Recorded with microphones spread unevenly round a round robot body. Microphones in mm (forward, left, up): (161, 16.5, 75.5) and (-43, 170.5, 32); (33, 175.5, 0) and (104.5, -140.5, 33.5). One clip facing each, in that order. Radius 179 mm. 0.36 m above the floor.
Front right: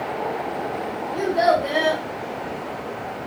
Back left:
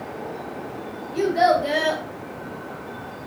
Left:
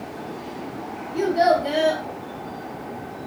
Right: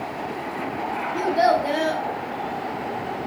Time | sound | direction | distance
1.1 | a child speaking | straight behind | 1.1 m